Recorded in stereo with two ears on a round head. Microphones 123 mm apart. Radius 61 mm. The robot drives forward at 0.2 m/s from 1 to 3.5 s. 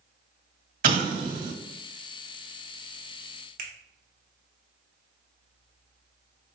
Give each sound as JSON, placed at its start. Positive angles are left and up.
{"t": 0.8, "sound": "an explosion", "side_deg": -70, "distance_m": 1.7}
{"t": 3.6, "sound": "a finger snap", "side_deg": -65, "distance_m": 1.2}